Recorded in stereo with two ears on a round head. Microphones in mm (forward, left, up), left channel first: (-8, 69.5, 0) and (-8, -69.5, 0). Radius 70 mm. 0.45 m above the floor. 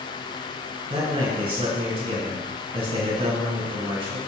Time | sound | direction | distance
0.9 | a man speaking | 35° right (ahead or behind) | 3 m